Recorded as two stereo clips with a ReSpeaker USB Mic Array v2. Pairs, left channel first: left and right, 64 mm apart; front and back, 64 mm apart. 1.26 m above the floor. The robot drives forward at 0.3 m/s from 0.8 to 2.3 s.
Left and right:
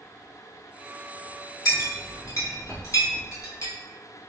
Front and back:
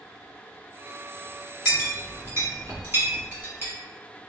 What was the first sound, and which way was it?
A clink, 125° left.